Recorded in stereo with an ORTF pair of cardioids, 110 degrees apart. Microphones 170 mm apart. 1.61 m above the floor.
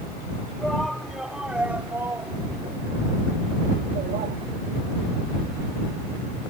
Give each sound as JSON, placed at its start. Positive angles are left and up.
{"t": 0.6, "sound": "a shout", "azimuth_deg": 5}